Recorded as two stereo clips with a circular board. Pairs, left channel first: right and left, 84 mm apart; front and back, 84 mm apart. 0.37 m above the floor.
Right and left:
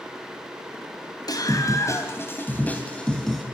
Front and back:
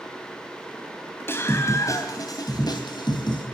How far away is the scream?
About 2.5 m.